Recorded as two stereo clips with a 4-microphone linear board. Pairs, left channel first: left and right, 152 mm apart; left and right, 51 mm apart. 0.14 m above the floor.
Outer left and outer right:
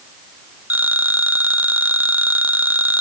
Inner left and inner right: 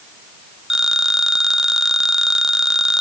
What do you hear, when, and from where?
0.7 s a phone ringing: 10° right (ahead or behind)